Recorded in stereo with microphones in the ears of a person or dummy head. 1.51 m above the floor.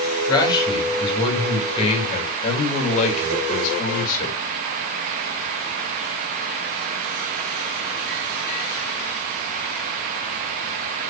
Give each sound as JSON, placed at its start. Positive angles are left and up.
{"t": 0.3, "sound": "a man speaking", "side_deg": 20, "distance_m": 5.0}